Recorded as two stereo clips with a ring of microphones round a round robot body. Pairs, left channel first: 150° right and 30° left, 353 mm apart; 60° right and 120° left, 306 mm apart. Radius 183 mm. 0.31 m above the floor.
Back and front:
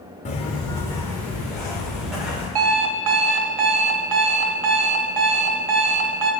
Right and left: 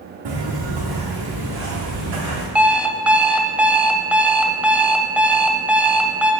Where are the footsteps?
140° left, 1.5 m; by 2.5 s 120° left, 4 m.